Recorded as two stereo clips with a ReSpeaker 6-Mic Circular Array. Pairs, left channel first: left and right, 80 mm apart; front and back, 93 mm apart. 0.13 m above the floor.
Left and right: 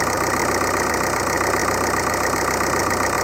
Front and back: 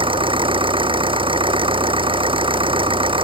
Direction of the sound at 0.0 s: Straight behind.